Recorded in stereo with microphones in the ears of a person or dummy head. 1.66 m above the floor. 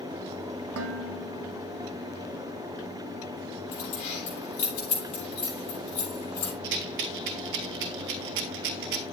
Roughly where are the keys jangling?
Left.